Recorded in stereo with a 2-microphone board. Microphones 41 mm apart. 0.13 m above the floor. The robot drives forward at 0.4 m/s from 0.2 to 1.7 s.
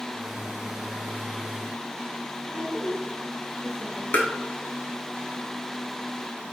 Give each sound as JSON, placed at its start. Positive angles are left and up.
{"t": 2.5, "sound": "a woman speaking", "side_deg": 45, "distance_m": 2.0}
{"t": 4.1, "sound": "tapping", "side_deg": 45, "distance_m": 0.7}